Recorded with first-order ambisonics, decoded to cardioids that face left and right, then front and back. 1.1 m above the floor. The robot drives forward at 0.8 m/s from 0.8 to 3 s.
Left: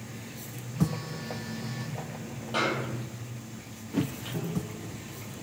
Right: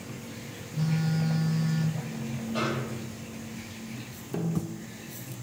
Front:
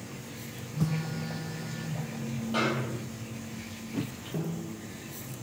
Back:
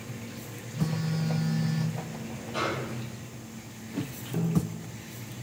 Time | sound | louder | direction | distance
0.7 | a phone buzzing | right 2 dB, back 1 dB | 90° right | 0.9 m
2.5 | a snare drum | left 3 dB, front 1 dB | 65° left | 1.2 m
4.3 | a snare drum | right 5 dB, back 5 dB | 115° right | 1.1 m